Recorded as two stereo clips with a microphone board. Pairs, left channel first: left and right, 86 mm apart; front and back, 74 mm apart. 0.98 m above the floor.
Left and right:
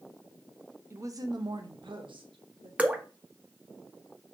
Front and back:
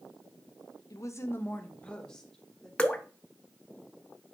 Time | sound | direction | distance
0.9 | a woman speaking | 35° right | 0.5 m
2.8 | dripping | 45° right | 0.5 m